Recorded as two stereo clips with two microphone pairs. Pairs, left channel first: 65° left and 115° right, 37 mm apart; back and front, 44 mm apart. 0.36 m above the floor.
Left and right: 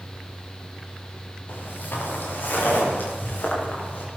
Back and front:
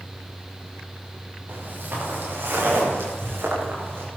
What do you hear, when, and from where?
1.5 s footsteps: 45° left, 5.5 m; by 4.1 s 25° left, 8 m